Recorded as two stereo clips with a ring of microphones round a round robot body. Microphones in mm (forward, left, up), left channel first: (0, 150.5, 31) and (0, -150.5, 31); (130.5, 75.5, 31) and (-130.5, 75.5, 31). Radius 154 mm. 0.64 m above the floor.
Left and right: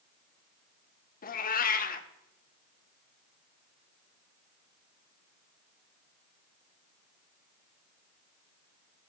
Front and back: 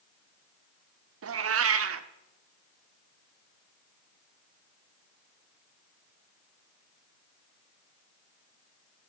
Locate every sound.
1.2 s a cat meowing: 150° left, 0.8 m